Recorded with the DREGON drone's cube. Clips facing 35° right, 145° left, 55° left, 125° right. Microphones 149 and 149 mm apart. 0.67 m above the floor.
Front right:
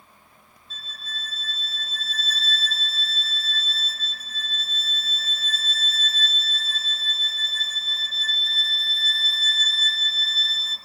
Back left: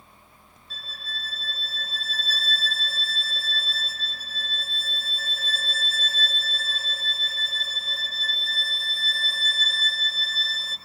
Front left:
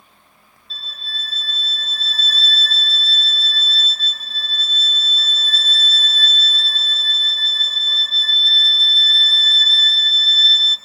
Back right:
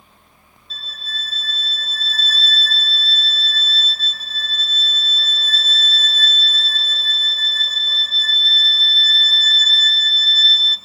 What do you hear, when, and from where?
0.7 s a violin: 145° left, 0.8 m